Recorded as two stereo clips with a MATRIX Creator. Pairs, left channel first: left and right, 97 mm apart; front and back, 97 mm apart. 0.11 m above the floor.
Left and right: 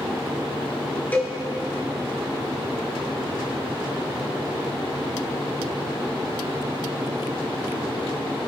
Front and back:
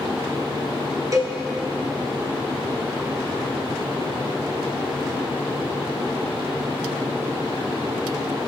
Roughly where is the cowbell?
Behind left.